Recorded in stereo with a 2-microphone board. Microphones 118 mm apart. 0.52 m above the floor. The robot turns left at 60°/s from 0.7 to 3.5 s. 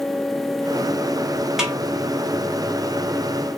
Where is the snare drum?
5° right (ahead or behind), 1.3 m; by 1.8 s 10° right (ahead or behind), 1.3 m.